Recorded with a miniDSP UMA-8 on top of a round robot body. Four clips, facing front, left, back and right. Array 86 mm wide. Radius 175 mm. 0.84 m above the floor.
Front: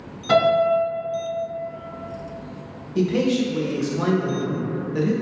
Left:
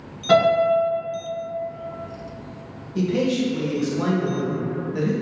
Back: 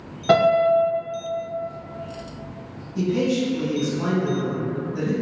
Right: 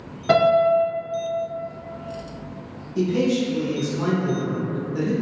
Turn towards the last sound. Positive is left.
turn(degrees=25)